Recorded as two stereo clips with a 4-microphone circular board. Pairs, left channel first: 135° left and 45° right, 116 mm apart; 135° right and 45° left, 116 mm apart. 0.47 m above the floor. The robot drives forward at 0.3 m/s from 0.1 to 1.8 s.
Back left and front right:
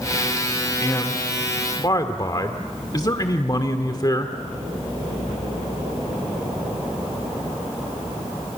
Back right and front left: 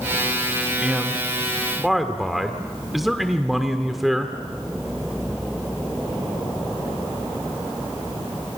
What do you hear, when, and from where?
0.8 s a man speaking: 115° left, 1.5 m; by 4.3 s 135° left, 1.6 m